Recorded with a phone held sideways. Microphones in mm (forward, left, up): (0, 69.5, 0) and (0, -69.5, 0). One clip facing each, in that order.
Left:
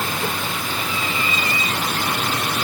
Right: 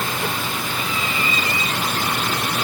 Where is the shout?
I don't hear a shout.